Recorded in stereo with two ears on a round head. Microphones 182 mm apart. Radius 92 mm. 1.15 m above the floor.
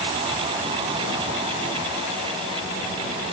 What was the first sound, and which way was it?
Only background noise.